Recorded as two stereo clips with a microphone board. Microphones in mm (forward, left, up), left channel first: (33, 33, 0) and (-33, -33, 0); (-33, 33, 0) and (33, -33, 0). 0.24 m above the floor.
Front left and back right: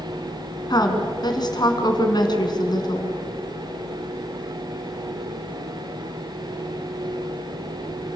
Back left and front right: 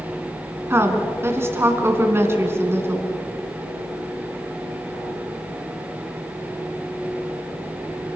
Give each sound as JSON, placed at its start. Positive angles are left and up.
{"t": 0.7, "sound": "a woman speaking", "azimuth_deg": 15, "distance_m": 2.5}